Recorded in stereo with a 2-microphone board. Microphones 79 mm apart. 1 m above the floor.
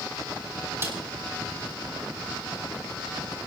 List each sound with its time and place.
0.8 s a snare drum: 30° right (ahead or behind), 3 m